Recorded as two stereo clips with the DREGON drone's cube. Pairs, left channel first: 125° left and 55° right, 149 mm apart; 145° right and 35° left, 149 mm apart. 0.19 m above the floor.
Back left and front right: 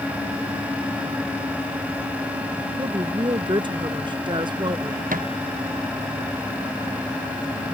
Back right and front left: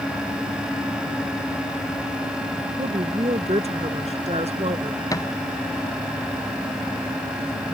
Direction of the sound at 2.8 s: 5° right.